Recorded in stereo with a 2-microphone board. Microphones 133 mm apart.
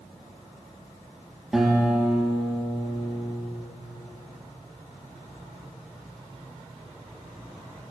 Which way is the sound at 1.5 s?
5° right (ahead or behind).